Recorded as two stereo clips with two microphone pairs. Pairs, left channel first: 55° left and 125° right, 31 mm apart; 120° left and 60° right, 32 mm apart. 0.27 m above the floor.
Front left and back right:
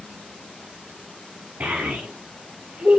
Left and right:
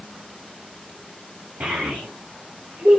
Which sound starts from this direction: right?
A child speaking, at 1.6 s.